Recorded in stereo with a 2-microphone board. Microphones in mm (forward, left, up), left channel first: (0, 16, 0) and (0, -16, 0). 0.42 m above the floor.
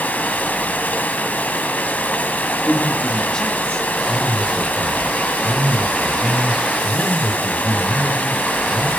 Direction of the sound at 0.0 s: 65° left (ahead or behind).